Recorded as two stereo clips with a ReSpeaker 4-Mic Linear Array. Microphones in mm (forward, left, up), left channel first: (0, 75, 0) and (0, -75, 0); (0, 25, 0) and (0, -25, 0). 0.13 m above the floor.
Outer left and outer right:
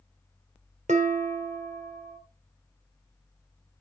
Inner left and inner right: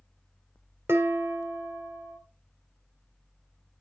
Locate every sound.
0.9 s dishes clattering: 55° right (ahead or behind), 1.8 m